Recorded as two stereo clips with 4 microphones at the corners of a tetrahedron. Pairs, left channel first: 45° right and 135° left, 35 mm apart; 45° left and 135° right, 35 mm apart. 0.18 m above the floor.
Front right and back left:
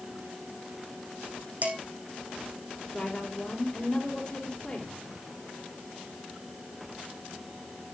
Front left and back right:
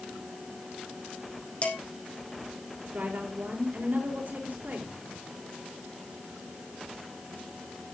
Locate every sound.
1.6 s dishes clattering: 95° left, 5.5 m
2.9 s a woman speaking: 105° right, 4 m